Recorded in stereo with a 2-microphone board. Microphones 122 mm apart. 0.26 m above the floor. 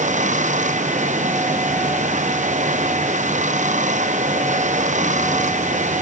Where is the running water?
85° right.